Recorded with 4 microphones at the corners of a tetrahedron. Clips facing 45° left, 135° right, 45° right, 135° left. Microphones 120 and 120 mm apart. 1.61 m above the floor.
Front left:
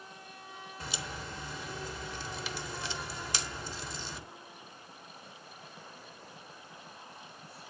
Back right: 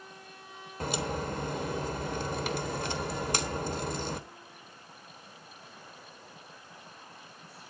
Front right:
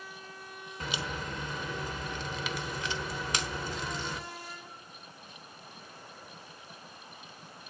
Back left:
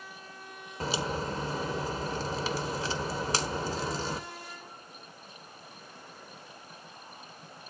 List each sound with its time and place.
0.8 s a crack: 170° right, 1.1 m